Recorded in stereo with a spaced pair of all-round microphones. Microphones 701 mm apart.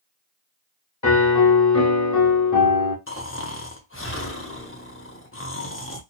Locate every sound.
1.0 s a piano: 25° left (ahead or behind), 0.8 m
3.1 s snoring: 20° left (ahead or behind), 0.7 m